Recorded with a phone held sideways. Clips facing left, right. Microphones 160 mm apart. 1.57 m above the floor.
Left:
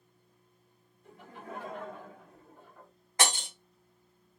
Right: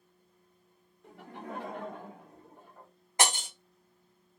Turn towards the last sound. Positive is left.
turn(degrees=-20)  # may be behind; listen again after turning